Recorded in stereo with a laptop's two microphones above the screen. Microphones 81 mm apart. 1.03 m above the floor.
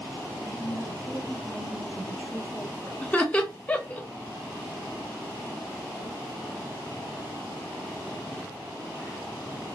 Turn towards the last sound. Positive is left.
turn(degrees=15)  # may be behind; listen again after turning